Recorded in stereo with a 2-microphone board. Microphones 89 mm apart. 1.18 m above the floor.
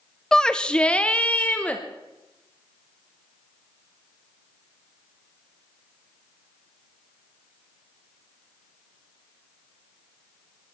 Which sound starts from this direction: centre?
A shout, at 0.3 s.